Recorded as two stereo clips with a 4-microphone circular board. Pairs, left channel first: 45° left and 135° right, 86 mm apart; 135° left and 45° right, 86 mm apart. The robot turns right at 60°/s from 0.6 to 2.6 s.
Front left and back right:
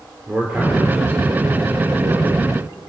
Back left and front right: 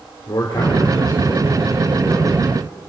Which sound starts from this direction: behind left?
A man speaking, at 0.3 s.